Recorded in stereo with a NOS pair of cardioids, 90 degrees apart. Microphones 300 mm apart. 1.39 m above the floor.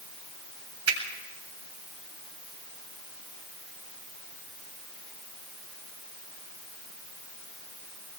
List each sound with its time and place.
0.9 s a finger snap: 50° right, 7.5 m